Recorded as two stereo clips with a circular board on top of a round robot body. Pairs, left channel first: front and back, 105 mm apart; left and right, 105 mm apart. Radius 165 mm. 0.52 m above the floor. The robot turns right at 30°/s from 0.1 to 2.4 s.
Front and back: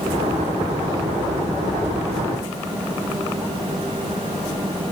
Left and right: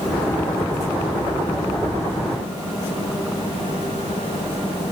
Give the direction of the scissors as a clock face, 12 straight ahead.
No scissors in this recording.